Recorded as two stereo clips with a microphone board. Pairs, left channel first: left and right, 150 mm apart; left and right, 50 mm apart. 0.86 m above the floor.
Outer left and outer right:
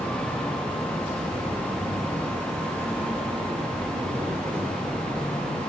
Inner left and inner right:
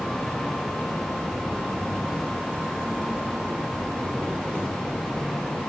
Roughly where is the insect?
Right.